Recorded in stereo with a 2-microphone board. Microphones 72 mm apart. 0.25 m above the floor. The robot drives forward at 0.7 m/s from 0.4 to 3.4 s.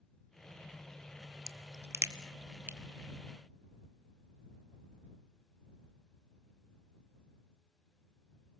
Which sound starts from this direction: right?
A crack, at 1.5 s.